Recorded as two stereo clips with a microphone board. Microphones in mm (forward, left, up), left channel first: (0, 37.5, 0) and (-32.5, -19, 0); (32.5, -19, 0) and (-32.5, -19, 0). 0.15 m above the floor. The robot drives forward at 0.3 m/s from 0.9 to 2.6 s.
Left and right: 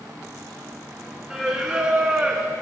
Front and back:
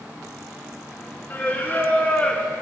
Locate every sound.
1.3 s singing: 35° right, 1.3 m; by 2.5 s 55° right, 1.2 m